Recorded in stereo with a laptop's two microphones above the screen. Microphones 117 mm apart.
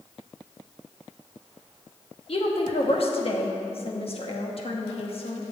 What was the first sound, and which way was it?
A woman speaking, 50° left (ahead or behind).